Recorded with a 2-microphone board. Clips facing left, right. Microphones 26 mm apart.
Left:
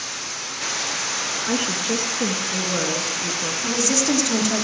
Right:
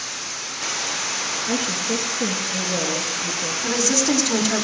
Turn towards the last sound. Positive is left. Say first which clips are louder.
# right 1 dB
turn(degrees=-10)  # may be behind; listen again after turning